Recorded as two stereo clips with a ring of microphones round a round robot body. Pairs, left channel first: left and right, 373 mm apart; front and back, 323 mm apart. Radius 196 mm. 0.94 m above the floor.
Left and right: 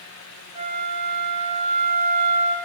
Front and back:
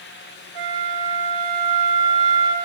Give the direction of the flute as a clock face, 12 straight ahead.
5 o'clock.